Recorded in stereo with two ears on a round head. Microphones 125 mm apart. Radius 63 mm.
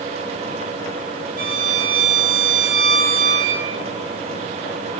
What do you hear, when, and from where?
1.4 s a violin: 70° right (ahead or behind), 3 m